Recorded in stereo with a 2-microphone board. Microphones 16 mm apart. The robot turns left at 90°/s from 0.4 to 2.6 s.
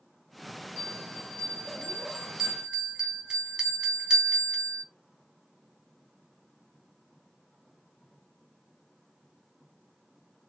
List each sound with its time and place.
0.8 s a bell: 65° left (ahead or behind), 2 m; by 4.8 s 55° right (ahead or behind), 2 m